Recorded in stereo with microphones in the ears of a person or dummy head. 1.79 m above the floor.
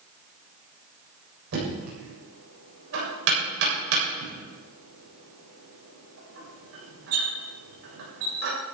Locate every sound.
1.5 s knocking: 70° right (ahead or behind), 7.5 m